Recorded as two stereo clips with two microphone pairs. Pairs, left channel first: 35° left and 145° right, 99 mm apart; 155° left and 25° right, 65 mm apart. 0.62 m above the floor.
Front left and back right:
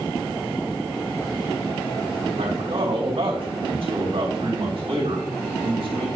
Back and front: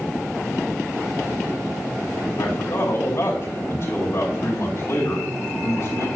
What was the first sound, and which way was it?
A man speaking, 165° right.